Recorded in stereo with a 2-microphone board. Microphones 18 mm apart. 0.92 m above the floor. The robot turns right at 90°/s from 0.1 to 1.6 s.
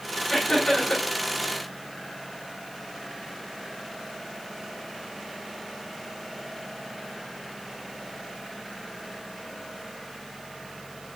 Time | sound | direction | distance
0.3 | laughter | 35° left | 3 m